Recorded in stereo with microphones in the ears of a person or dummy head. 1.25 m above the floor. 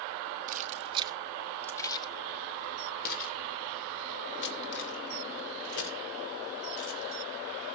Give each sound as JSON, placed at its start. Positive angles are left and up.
{"t": 0.5, "sound": "keys jangling", "side_deg": -45, "distance_m": 1.0}